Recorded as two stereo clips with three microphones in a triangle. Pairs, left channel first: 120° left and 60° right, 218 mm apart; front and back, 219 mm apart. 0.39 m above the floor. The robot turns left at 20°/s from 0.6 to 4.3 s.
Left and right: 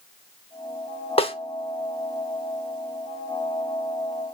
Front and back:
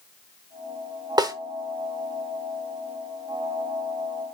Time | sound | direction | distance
1.2 | a snare drum | 135° left | 0.8 m